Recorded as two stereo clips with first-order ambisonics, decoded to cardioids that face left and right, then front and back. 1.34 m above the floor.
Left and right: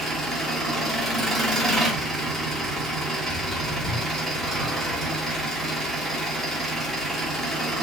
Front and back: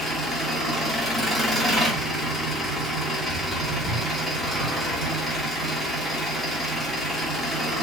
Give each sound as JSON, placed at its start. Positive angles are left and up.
{"t": 0.0, "sound": "an engine running", "azimuth_deg": -135, "distance_m": 1.1}